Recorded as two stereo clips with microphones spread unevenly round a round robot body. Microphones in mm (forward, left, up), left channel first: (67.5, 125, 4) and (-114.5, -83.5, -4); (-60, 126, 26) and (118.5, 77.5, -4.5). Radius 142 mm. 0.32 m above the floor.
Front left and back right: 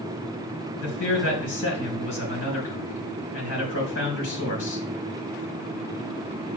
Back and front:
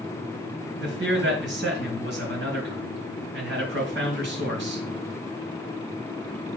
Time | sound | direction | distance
0.8 | a man speaking | 5° right | 4 m